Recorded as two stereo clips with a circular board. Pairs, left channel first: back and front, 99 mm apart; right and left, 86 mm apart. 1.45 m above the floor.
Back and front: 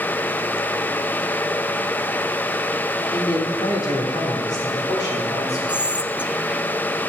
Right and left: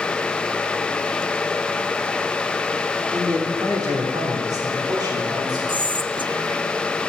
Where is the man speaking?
135° left, 2.5 m; by 5.6 s 130° left, 4.5 m.